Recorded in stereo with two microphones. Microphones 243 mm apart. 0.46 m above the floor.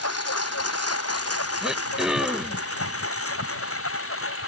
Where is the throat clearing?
5° right (ahead or behind).